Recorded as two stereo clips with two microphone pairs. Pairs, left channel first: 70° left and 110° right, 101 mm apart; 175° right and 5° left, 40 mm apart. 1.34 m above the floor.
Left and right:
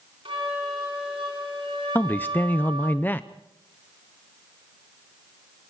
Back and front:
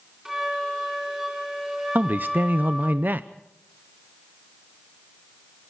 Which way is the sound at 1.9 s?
5° left.